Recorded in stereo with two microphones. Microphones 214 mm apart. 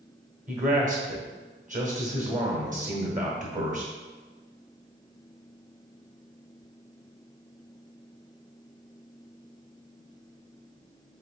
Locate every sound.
0.5 s a man speaking: 35° right (ahead or behind), 1.3 m